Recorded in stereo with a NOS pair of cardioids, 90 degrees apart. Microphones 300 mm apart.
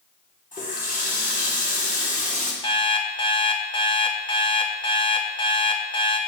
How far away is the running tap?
About 2 m.